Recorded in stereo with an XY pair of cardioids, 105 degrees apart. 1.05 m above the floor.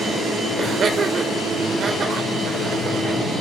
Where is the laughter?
50° right, 3.5 m.